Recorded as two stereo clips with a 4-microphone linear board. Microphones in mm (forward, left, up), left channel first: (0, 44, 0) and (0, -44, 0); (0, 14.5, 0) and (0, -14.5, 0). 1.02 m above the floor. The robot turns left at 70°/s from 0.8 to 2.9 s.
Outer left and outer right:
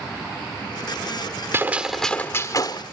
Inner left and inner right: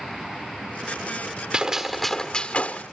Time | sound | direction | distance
1.5 | a gunshot | 150° right | 1.5 m